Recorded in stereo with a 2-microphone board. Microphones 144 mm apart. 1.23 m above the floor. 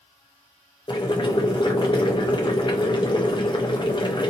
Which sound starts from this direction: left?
Boiling, at 0.9 s.